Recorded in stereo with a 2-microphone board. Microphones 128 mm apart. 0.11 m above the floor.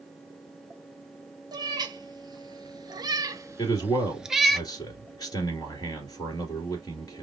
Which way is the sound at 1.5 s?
35° right (ahead or behind).